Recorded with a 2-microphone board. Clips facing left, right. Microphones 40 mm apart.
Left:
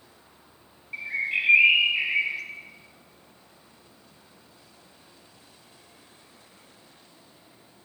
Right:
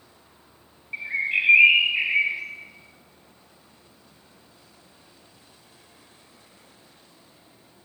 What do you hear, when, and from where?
0.9 s a bird: 20° right (ahead or behind), 0.9 m